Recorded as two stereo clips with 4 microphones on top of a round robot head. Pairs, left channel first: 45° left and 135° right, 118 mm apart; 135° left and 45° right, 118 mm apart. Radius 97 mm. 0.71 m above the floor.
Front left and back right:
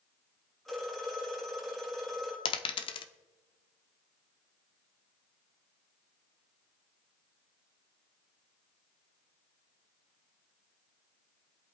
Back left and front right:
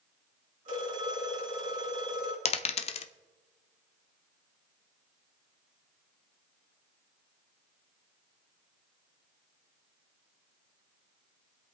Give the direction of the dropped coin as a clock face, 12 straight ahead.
9 o'clock.